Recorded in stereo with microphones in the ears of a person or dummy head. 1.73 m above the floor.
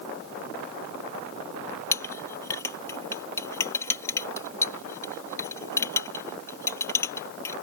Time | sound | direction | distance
1.9 | a clink | 15° left (ahead or behind) | ?